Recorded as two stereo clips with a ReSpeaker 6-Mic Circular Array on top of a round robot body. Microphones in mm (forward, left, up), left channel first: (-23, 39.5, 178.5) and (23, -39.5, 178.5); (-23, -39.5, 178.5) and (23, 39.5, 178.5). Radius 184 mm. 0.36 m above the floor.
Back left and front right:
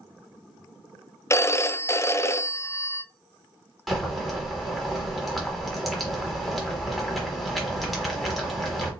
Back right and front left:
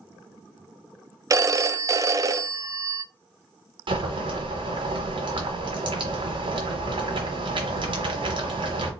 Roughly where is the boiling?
Ahead left.